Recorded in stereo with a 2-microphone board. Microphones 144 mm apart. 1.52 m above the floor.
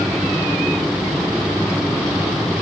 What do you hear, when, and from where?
Only background noise.